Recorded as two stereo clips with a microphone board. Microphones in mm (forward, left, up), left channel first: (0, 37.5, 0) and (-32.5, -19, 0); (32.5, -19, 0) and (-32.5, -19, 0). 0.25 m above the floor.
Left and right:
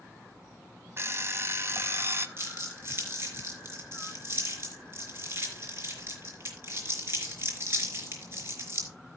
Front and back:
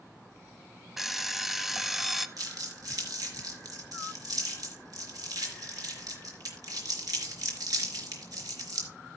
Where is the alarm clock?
95° right, 0.8 m.